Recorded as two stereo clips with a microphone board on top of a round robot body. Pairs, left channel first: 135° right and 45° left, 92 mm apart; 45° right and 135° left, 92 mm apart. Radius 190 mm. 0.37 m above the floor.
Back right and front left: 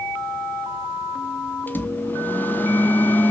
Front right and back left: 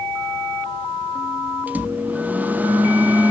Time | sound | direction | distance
1.7 | a microwave | 175° right | 0.9 m